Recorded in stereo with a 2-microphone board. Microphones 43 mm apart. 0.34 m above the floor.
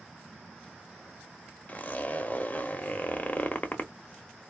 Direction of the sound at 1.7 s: 35° left (ahead or behind).